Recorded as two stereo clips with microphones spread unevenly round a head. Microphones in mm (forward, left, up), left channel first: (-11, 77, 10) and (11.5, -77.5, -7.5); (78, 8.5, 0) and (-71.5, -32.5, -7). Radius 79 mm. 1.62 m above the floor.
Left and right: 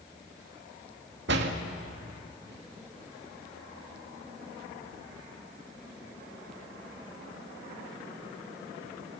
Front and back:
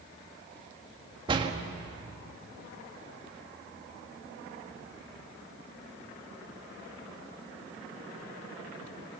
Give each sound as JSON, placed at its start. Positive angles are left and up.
{"t": 1.3, "sound": "a door slam", "azimuth_deg": -105, "distance_m": 1.8}